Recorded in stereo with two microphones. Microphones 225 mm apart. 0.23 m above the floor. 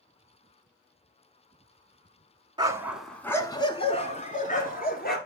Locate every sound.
2.6 s a dog barking: 20° right (ahead or behind), 0.7 m; by 5.2 s 45° left (ahead or behind), 1.7 m